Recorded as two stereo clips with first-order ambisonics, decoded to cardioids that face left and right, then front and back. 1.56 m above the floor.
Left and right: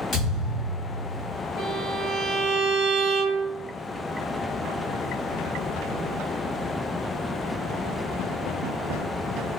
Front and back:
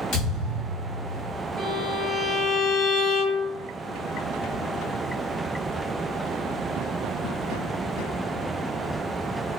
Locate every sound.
0.1 s a thud: 35° left, 1.5 m
1.6 s a violin: 70° left, 1.7 m